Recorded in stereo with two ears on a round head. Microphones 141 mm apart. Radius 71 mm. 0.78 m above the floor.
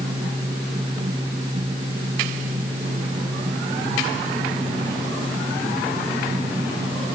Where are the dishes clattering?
I don't hear dishes clattering.